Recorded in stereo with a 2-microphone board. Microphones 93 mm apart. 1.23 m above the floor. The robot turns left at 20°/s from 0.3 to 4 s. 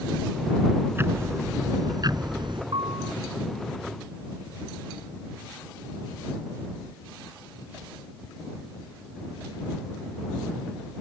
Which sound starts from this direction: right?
A piano, at 2.7 s.